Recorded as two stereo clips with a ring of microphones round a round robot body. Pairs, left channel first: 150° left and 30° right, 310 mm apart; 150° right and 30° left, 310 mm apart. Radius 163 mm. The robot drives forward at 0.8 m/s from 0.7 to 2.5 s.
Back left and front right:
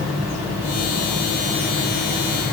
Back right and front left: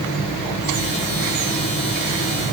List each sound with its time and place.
Only background noise.